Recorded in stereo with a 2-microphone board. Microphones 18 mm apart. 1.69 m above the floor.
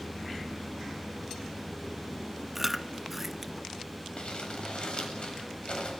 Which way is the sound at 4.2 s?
55° left (ahead or behind).